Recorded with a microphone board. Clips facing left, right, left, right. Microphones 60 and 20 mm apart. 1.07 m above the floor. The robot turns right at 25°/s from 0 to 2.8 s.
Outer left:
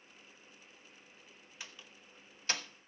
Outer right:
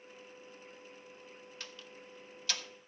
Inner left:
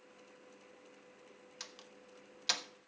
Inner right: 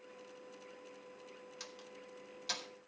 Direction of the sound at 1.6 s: 10° left (ahead or behind).